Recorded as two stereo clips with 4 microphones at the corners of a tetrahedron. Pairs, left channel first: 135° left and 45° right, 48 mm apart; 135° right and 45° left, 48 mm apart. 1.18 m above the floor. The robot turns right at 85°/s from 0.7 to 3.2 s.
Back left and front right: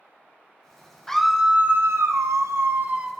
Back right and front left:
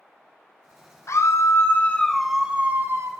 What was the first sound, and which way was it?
A scream, 145° right.